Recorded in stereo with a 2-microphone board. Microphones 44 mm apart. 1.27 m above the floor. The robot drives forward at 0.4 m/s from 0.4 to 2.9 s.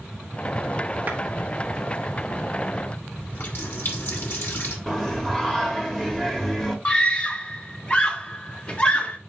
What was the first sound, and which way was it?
A clap, 35° right (ahead or behind).